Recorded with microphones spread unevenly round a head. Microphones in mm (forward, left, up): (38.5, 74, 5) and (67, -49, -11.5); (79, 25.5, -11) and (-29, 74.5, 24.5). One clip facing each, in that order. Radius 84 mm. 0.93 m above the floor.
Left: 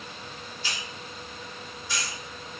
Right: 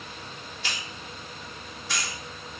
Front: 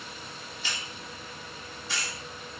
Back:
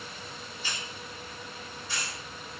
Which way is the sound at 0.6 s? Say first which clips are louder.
Right 1 dB, front 1 dB; 50° right.